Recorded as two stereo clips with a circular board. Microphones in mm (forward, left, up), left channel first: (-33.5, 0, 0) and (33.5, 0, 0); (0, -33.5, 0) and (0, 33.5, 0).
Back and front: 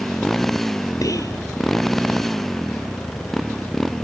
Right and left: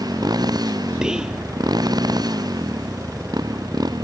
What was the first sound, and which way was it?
A motorcycle, 95° left.